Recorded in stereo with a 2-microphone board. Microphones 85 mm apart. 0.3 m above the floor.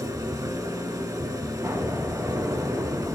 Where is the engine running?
45° right (ahead or behind), 1.5 m.